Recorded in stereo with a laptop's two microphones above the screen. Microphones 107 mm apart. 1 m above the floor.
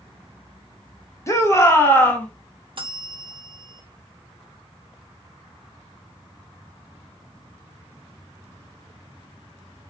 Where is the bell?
50° right (ahead or behind), 0.7 m.